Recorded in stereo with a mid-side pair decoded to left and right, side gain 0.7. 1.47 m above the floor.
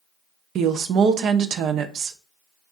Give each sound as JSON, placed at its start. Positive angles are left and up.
{"t": 0.6, "sound": "a woman speaking", "azimuth_deg": -50, "distance_m": 0.5}